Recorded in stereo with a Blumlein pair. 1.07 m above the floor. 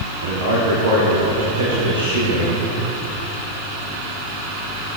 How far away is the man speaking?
About 2.5 m.